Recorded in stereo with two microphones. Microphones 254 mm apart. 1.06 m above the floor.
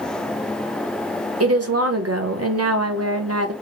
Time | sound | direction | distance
1.4 | a woman speaking | 70° right (ahead or behind) | 0.7 m